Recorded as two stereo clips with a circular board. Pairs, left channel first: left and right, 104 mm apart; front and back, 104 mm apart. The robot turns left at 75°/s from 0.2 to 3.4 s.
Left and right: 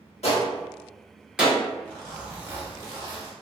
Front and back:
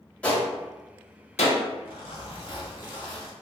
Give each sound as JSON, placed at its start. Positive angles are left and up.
{"t": 0.2, "sound": "a gunshot", "azimuth_deg": 80, "distance_m": 0.8}
{"t": 1.9, "sound": "a zipper", "azimuth_deg": 20, "distance_m": 1.3}